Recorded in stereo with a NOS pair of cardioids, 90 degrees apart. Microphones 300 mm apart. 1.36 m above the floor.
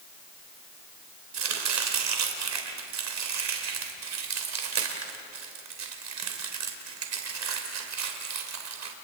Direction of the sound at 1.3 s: 55° right.